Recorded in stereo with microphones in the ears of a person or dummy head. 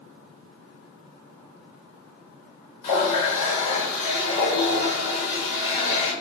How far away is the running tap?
About 1.0 m.